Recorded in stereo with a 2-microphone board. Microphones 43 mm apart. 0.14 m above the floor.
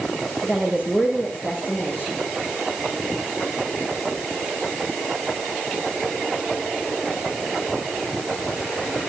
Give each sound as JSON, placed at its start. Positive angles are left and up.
{"t": 0.4, "sound": "a woman speaking", "side_deg": 40, "distance_m": 8.0}